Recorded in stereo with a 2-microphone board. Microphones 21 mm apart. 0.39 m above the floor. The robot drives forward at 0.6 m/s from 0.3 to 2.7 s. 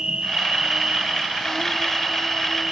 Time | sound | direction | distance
0.0 | an insect | 50° right (ahead or behind) | 1.4 m